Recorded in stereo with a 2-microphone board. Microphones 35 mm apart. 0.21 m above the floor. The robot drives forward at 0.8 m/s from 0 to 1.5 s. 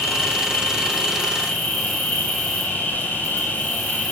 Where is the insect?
60° left (ahead or behind), 6 m; by 4.1 s 55° left (ahead or behind), 6.5 m.